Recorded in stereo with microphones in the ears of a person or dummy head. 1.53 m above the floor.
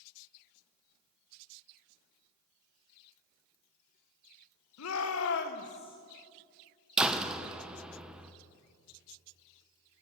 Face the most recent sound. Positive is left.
turn(degrees=-5)  # may be behind; listen again after turning